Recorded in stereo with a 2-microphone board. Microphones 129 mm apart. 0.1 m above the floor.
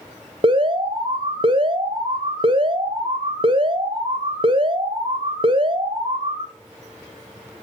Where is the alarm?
40° right (ahead or behind), 1.6 m.